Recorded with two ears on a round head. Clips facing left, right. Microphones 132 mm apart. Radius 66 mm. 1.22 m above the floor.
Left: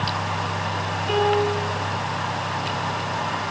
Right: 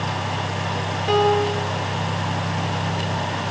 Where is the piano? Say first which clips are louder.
Right 2 dB; 75° right (ahead or behind), 4.5 m.